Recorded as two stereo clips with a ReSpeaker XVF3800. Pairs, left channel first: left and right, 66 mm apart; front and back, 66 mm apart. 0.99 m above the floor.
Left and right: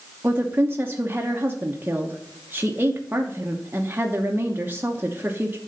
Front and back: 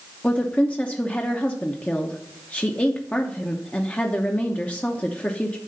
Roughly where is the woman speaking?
Ahead right.